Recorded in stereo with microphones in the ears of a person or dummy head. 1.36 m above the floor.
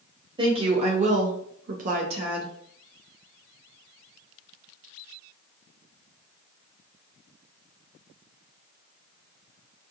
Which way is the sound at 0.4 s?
25° right (ahead or behind).